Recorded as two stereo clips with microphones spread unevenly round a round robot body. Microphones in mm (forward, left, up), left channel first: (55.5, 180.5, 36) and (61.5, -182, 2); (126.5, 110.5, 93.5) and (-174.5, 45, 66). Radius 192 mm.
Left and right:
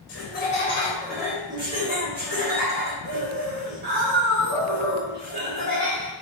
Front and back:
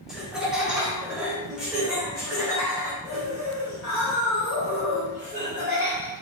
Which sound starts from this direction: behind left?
Laughter, at 0.1 s.